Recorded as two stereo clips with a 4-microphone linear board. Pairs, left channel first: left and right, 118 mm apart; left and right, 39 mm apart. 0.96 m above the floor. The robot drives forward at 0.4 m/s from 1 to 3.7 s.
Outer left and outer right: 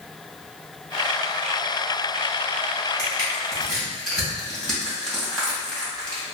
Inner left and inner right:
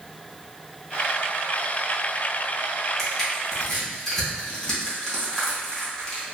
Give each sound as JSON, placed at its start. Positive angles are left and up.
{"t": 3.0, "sound": "crushing", "side_deg": 10, "distance_m": 1.5}